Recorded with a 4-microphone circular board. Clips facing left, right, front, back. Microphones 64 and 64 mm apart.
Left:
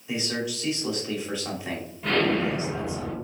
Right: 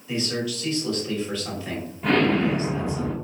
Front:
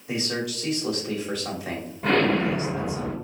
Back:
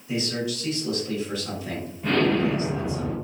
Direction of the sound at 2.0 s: 15° right.